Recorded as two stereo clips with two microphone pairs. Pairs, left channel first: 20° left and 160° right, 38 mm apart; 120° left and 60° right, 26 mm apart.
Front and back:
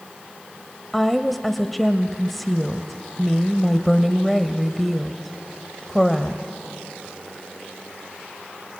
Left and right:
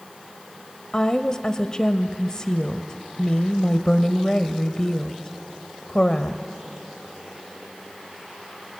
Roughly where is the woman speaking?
Left.